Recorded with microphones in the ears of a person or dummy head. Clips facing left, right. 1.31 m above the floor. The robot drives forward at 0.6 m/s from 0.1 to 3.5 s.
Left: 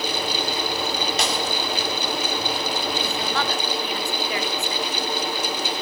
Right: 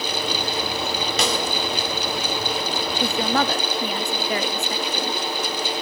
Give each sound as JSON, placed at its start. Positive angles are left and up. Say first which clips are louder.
{"t": 1.2, "sound": "a snare drum", "louder": "right 1 dB", "side_deg": -70, "distance_m": 3.5}
{"t": 3.0, "sound": "a woman speaking", "louder": "right 4 dB", "side_deg": -45, "distance_m": 1.4}